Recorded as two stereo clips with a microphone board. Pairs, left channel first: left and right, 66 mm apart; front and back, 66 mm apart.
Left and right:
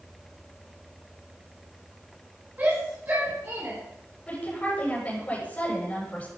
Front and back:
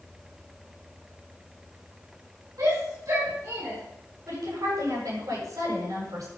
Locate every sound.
2.6 s a shout: 150° right, 5 m; by 3.8 s 140° right, 5.5 m
4.3 s a woman speaking: 160° left, 8 m